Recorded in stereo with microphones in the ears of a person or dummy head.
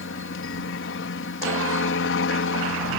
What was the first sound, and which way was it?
A helicopter, 65° left (ahead or behind).